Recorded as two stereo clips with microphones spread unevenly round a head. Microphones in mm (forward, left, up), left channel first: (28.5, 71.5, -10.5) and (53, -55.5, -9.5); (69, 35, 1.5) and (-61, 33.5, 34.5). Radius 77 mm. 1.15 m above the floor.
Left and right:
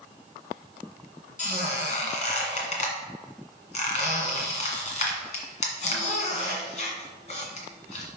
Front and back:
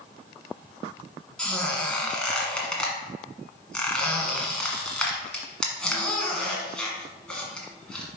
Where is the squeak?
95° left, 1.7 m.